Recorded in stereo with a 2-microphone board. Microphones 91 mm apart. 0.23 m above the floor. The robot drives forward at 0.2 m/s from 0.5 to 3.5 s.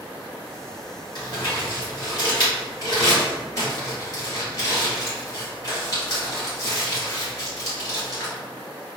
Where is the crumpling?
50° left (ahead or behind), 1.7 m; by 8.3 s 40° left (ahead or behind), 2.0 m.